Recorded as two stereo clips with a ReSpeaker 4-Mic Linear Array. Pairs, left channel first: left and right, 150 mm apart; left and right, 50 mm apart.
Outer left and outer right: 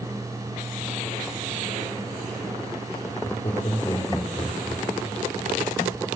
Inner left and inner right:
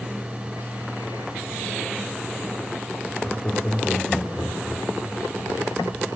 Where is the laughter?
40° left (ahead or behind), 3.5 m; by 5.2 s 15° left (ahead or behind), 3.5 m.